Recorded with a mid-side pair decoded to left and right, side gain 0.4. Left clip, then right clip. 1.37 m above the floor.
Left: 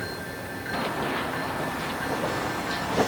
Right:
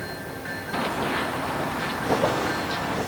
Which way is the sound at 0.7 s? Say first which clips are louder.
Right 2 dB; 15° right.